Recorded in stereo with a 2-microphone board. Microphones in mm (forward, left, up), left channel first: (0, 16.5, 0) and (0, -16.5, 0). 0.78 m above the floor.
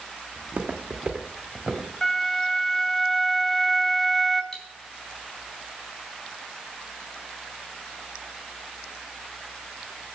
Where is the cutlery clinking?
20° left (ahead or behind), 4 m.